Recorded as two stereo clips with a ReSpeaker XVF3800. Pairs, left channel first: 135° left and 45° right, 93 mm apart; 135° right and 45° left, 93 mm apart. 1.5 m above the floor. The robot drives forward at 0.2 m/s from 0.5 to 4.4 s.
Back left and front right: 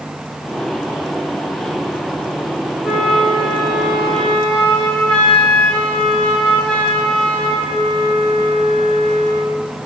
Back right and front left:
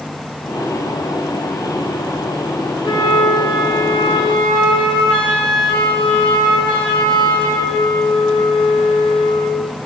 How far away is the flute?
About 0.9 m.